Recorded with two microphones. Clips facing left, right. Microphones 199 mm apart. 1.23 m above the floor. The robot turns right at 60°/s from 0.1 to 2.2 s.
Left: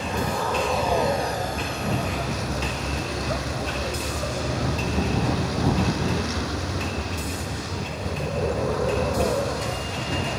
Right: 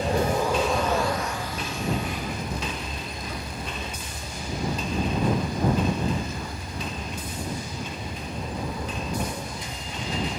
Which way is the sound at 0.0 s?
35° right.